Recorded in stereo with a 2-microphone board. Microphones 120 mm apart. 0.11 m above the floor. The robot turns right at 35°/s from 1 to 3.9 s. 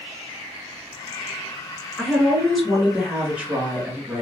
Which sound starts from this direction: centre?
A woman speaking, at 2.0 s.